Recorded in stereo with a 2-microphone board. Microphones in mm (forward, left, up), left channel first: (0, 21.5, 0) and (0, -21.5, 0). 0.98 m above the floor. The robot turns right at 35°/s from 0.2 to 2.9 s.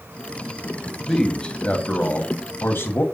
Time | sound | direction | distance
1.1 | a man speaking | 15° left | 1.3 m